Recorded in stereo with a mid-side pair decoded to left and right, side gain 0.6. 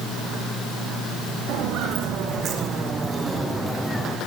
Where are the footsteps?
70° right, 4 m; by 4.2 s 5° left, 3 m.